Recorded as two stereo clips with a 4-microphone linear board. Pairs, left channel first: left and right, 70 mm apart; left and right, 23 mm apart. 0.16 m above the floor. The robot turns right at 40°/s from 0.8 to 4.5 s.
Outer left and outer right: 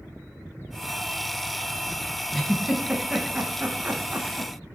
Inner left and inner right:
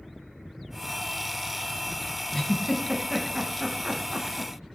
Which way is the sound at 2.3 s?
Centre (ahead or behind).